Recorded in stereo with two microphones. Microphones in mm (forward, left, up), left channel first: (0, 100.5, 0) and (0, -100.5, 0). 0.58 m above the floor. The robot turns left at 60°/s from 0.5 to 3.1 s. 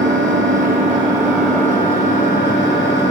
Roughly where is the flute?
No flute in this recording.